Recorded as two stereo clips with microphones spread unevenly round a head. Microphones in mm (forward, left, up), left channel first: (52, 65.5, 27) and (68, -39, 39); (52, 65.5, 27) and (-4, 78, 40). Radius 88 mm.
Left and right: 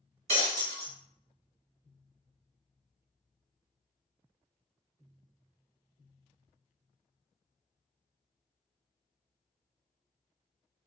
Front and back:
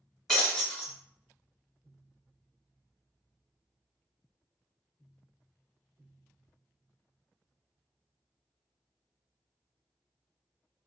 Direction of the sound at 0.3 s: 110° right.